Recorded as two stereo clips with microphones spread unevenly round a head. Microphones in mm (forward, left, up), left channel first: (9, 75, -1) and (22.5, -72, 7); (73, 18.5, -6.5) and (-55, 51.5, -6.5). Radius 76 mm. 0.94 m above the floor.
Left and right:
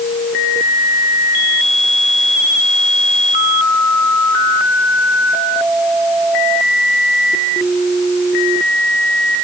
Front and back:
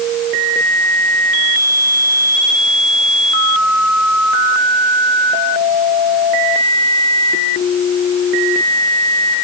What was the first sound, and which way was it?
Only background noise.